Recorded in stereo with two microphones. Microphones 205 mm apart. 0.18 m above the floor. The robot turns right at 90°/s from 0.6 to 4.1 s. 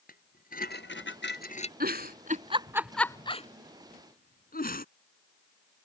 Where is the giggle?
45° right (ahead or behind); by 4.8 s 45° left (ahead or behind).